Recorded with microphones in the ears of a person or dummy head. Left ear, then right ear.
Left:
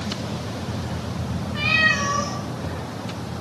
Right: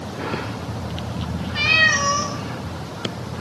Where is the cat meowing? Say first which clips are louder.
Right 3 dB; 10° right (ahead or behind), 1.5 m.